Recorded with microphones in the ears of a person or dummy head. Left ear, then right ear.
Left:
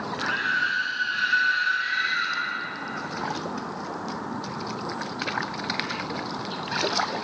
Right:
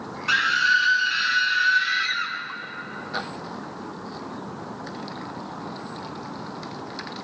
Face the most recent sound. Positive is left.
turn(degrees=-45)  # may be behind; listen again after turning